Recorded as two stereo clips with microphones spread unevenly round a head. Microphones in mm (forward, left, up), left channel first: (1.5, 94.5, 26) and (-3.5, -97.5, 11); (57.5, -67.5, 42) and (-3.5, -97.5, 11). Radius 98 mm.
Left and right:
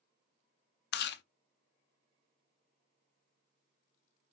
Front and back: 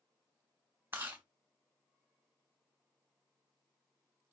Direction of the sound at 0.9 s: 120° left.